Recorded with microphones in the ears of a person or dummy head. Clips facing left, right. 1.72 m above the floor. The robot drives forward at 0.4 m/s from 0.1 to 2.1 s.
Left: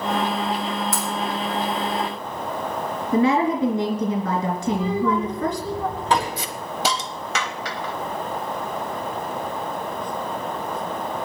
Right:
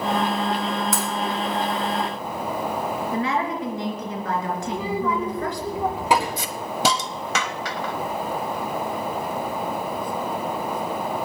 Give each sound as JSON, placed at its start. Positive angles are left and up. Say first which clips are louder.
{"t": 0.9, "sound": "breaking glass", "louder": "right 1 dB", "side_deg": -65, "distance_m": 3.0}
{"t": 3.1, "sound": "a woman speaking", "louder": "left 9 dB", "side_deg": 85, "distance_m": 3.0}
{"t": 4.7, "sound": "a child speaking", "louder": "left 5 dB", "side_deg": -15, "distance_m": 2.5}
{"t": 6.4, "sound": "a hiss", "louder": "right 2 dB", "side_deg": -75, "distance_m": 1.0}